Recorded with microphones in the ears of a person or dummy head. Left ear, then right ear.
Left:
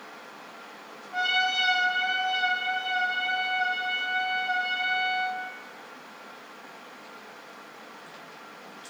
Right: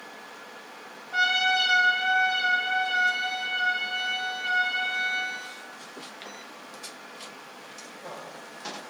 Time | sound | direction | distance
1.1 | a trumpet | 65° right (ahead or behind) | 1.2 m